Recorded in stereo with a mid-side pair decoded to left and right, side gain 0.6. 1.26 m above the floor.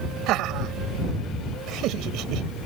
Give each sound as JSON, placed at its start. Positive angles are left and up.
{"t": 0.3, "sound": "laughter", "azimuth_deg": -65}